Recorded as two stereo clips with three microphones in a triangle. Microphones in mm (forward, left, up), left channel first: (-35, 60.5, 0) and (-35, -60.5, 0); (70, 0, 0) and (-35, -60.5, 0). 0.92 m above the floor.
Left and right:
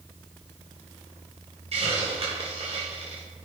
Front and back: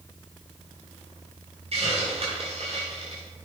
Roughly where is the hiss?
Behind right.